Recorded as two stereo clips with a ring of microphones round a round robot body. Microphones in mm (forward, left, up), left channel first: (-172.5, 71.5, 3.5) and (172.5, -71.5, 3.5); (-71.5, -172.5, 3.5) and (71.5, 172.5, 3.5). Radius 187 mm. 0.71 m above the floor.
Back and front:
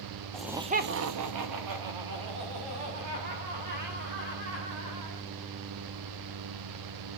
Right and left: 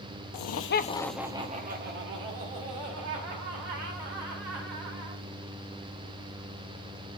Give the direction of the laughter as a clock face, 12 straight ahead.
4 o'clock.